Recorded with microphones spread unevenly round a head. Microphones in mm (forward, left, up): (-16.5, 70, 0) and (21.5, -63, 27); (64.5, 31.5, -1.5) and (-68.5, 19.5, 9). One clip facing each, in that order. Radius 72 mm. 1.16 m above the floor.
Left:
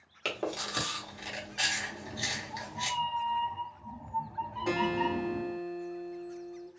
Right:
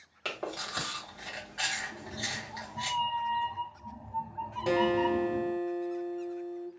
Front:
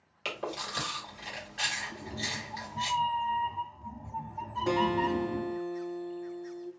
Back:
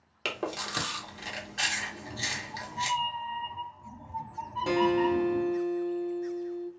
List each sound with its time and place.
0.2 s chewing: 160° left, 1.2 m
1.9 s a cat meowing: 15° right, 0.7 m
4.7 s a guitar: 115° right, 1.4 m